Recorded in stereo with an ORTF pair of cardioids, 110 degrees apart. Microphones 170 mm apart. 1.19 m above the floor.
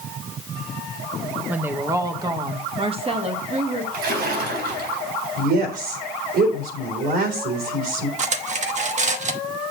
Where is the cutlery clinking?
45° right, 1.1 m.